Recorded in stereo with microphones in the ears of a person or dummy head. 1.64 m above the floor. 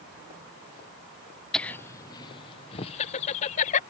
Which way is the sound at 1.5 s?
5° left (ahead or behind).